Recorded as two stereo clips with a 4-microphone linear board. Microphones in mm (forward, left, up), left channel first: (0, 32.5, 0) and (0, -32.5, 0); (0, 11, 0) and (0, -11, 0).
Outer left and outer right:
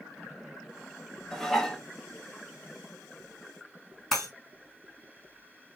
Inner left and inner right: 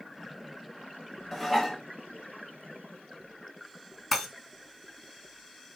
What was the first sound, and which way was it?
Dishes clattering, 5° left (ahead or behind).